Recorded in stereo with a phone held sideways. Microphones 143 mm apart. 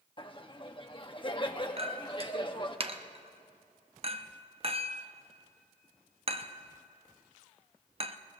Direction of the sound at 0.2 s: 35° left (ahead or behind).